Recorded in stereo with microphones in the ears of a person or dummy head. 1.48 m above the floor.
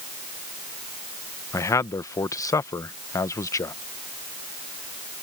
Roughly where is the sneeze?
No sneeze in this recording.